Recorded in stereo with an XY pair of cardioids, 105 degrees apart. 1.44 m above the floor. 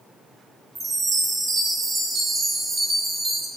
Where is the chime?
40° right, 2.5 m.